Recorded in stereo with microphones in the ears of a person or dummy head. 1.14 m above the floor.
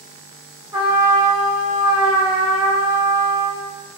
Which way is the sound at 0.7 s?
Centre (ahead or behind).